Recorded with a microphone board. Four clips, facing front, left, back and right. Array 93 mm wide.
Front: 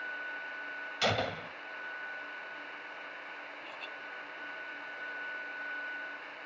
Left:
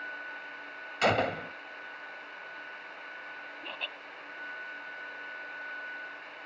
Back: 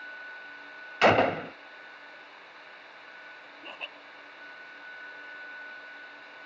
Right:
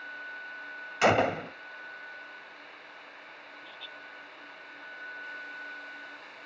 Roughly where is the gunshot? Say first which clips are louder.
Right 3 dB, back 11 dB; behind right.